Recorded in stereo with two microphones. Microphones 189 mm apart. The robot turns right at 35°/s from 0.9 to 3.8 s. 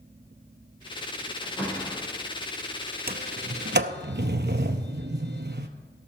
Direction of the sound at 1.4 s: 5° left (ahead or behind).